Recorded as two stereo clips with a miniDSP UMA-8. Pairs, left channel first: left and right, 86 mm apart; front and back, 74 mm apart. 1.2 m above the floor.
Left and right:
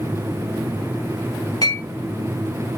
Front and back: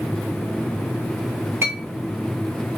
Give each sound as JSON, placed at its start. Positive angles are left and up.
{"t": 1.6, "sound": "a clink", "azimuth_deg": 130, "distance_m": 0.9}